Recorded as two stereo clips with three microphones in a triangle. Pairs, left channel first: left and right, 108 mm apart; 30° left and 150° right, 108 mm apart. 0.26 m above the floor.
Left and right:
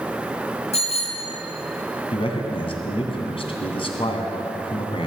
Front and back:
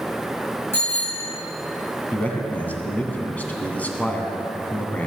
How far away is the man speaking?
About 2.5 m.